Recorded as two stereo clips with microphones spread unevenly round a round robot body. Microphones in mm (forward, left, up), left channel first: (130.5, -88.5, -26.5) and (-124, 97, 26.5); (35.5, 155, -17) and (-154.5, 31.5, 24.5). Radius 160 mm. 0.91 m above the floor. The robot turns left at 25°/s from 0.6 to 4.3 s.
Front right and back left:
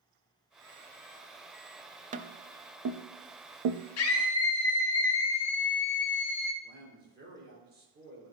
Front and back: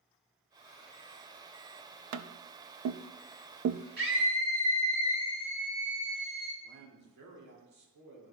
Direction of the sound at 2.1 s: 145° right.